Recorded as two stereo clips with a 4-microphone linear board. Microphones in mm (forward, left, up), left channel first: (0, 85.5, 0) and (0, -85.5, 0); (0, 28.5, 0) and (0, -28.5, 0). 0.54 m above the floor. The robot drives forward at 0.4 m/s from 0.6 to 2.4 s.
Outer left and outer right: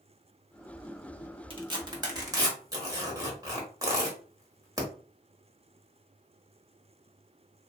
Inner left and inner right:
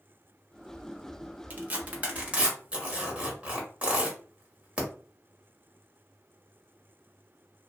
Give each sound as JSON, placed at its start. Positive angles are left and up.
{"t": 1.5, "sound": "tearing paper", "side_deg": -30, "distance_m": 0.8}